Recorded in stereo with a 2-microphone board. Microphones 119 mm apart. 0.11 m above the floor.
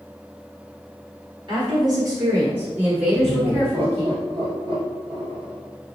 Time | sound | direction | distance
1.5 | a woman speaking | 40° right (ahead or behind) | 1.9 m
3.1 | laughter | 45° right (ahead or behind) | 1.7 m